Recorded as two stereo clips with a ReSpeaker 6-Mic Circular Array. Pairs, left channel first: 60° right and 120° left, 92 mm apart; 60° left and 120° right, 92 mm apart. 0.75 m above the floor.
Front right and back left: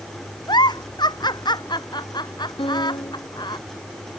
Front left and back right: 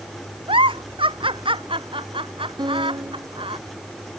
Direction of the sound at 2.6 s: 80° right.